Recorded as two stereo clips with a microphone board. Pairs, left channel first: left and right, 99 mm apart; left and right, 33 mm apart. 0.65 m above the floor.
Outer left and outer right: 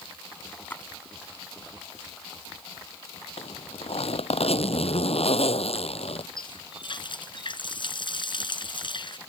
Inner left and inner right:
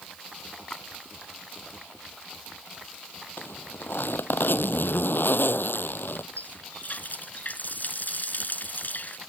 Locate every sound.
0.7 s a splash: 20° left (ahead or behind)
3.4 s a zipper: 90° left
6.4 s a running tap: 55° left (ahead or behind)